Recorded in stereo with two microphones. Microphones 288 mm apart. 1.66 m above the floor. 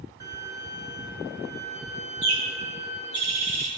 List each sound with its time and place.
0.2 s a violin: 80° right, 2 m
2.2 s a bird: 75° right (ahead or behind), 3.5 m